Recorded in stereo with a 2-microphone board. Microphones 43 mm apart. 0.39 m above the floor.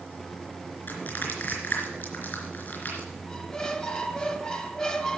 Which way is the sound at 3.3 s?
20° left (ahead or behind).